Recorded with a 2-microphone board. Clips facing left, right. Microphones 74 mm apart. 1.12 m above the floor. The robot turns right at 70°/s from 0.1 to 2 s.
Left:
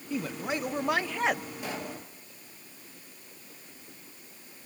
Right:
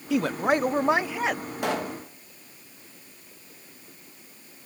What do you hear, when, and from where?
0.1 s a man speaking: 85° right, 0.6 m; by 1.4 s 10° left, 0.6 m
1.6 s a pop: 75° right (ahead or behind), 1.4 m; by 2.0 s 60° right (ahead or behind), 1.4 m